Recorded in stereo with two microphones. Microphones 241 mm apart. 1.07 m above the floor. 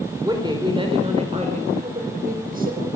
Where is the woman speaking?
15° right (ahead or behind), 4 m; by 2.9 s 40° right (ahead or behind), 5 m.